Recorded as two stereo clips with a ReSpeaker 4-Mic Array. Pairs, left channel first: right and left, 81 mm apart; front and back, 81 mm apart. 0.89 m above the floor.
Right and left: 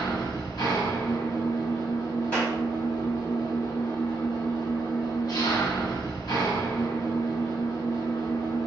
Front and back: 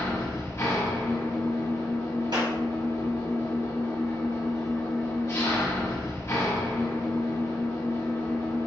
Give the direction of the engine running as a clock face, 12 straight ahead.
2 o'clock.